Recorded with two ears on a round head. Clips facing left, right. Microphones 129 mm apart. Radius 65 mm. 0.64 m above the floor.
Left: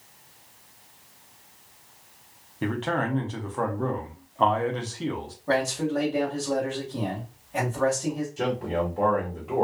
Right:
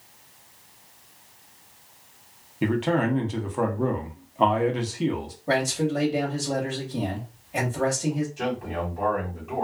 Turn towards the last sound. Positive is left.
turn(degrees=40)  # may be behind; listen again after turning